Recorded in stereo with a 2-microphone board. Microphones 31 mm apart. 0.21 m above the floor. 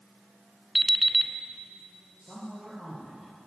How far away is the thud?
No thud in this recording.